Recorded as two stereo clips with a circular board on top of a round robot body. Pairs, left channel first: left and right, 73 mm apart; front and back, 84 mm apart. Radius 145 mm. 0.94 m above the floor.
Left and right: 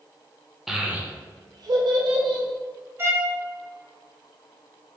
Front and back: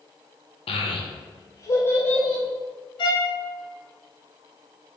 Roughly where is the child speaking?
Ahead.